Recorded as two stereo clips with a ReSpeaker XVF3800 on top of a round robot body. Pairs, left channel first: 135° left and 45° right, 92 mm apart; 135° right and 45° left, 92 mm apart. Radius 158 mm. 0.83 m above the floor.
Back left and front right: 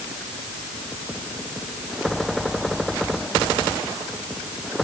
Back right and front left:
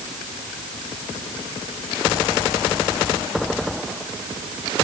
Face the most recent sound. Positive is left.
No sound to turn to.